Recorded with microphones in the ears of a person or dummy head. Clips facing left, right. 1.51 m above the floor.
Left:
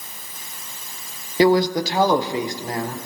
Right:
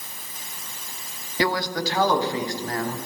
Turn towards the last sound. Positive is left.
turn(degrees=20)  # may be behind; listen again after turning